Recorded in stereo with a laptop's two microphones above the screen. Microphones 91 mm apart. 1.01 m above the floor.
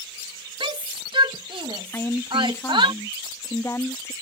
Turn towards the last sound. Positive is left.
turn(degrees=30)  # may be behind; listen again after turning